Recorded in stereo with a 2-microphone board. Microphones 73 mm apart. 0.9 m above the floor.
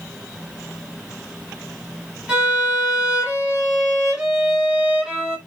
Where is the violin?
15° right (ahead or behind), 0.7 m.